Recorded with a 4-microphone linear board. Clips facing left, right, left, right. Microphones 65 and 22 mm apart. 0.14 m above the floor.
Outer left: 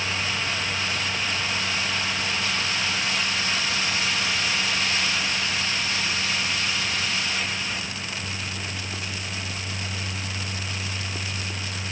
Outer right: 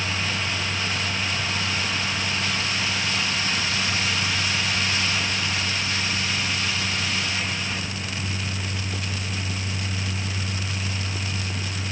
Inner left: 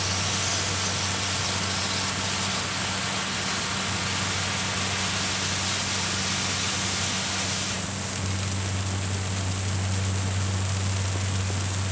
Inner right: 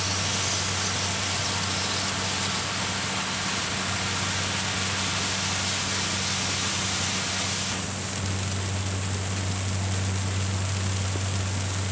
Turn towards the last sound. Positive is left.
No sound to turn to.